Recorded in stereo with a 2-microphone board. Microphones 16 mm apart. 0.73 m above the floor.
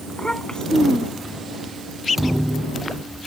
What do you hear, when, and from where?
0.1 s a child speaking: 45° left (ahead or behind); by 1.4 s 70° left (ahead or behind)
2.2 s a thud: 20° right (ahead or behind)